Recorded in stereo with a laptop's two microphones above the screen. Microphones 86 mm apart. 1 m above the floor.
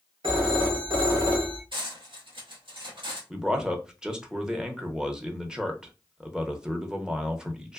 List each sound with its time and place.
0.2 s a phone ringing: 70° right (ahead or behind), 0.8 m
1.7 s cutlery clinking: 75° right (ahead or behind), 1.1 m
3.3 s a man speaking: 10° right (ahead or behind), 0.7 m